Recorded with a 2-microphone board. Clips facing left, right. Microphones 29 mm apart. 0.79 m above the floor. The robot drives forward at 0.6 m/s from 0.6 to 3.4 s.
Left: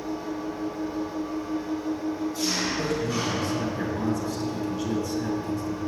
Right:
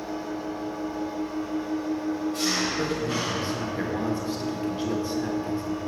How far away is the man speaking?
About 1.1 m.